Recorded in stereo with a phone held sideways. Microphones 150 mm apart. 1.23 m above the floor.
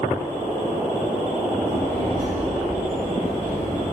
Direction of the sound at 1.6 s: 45° right (ahead or behind).